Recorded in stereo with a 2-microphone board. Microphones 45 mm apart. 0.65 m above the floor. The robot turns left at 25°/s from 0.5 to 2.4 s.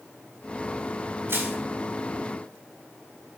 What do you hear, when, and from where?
1.3 s crushing: 70° right (ahead or behind), 4 m; by 1.6 s 65° right (ahead or behind), 4 m